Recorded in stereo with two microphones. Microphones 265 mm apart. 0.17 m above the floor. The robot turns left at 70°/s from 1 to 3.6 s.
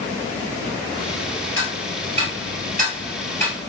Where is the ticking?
55° right (ahead or behind), 1.7 m; by 3.5 s 20° left (ahead or behind), 1.7 m.